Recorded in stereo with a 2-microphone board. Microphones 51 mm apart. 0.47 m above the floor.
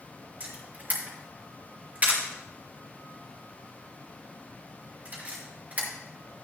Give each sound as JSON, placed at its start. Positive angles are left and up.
{"t": 0.4, "sound": "a camera shutter", "side_deg": -30, "distance_m": 5.0}